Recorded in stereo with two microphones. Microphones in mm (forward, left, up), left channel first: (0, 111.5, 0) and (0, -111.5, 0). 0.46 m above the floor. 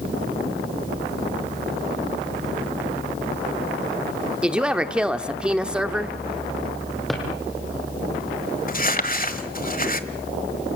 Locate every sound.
4.4 s a woman speaking: 5° right (ahead or behind), 0.9 m
7.1 s a drawer: centre (ahead or behind), 4.5 m
8.7 s crumpling: 40° left (ahead or behind), 1.3 m